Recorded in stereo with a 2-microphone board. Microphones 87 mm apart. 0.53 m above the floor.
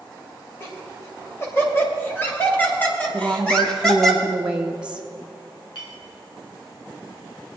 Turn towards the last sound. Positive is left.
turn(degrees=60)  # may be behind; listen again after turning